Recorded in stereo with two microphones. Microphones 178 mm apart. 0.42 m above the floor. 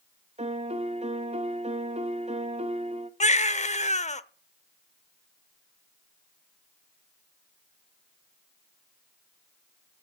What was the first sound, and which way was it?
A piano, 35° right (ahead or behind).